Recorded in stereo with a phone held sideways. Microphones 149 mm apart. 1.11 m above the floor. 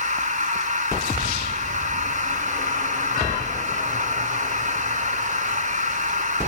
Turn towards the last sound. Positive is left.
turn(degrees=-55)  # may be behind; listen again after turning